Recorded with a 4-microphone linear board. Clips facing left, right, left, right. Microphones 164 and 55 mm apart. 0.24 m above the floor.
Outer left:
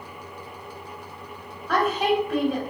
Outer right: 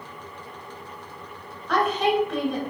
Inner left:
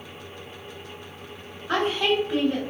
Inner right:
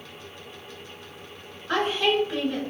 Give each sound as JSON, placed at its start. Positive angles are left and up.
{"t": 1.7, "sound": "a woman speaking", "side_deg": 10, "distance_m": 1.1}